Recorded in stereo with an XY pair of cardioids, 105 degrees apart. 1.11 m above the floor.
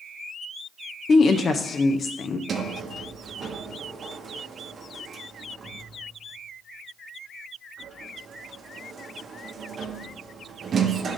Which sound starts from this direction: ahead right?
A sliding door, at 2.5 s.